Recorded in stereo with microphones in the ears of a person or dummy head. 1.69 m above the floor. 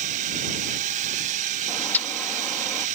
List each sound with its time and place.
0.0 s a drone: 45° right (ahead or behind)
1.7 s a bird: 5° left (ahead or behind)